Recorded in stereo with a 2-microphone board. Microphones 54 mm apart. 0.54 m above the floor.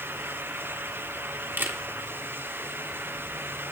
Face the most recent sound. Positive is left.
turn(degrees=-40)  # may be behind; listen again after turning